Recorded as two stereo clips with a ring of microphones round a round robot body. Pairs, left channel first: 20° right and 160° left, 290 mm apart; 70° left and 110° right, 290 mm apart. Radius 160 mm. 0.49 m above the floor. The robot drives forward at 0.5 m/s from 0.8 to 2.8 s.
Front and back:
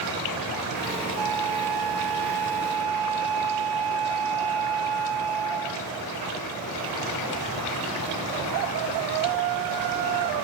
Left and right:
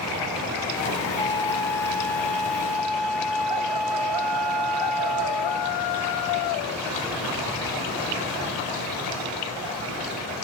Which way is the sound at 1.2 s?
145° left.